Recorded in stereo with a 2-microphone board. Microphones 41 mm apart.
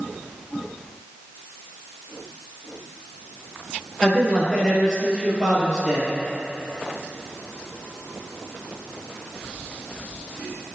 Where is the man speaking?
15° left (ahead or behind), 3 m; by 6.1 s 5° right (ahead or behind), 3.5 m.